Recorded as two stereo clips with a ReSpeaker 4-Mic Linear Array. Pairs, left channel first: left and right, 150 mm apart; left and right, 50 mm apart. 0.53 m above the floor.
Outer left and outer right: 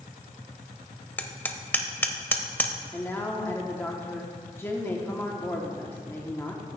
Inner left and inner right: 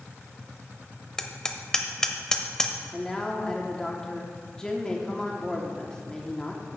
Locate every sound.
1.2 s hammering: 10° left (ahead or behind), 0.6 m
2.9 s a man speaking: 15° left (ahead or behind), 0.8 m